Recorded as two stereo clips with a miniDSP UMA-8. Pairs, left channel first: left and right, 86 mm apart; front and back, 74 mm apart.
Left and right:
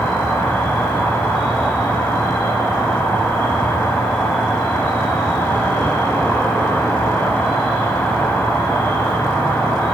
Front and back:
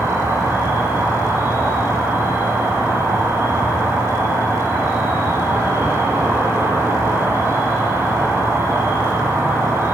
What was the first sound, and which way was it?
An insect, 160° left.